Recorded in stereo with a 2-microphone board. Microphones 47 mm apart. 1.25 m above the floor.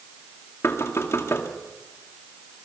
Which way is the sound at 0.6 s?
70° left (ahead or behind).